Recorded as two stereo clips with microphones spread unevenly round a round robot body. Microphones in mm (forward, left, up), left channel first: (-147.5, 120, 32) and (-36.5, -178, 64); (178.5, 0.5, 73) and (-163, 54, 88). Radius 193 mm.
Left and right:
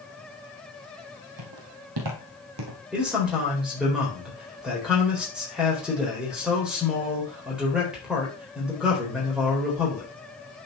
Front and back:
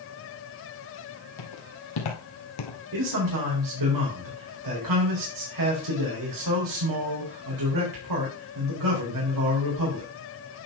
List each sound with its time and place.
1.4 s footsteps: 40° right, 2 m; by 2.8 s 35° right, 1.3 m
2.9 s a man speaking: 160° right, 3.5 m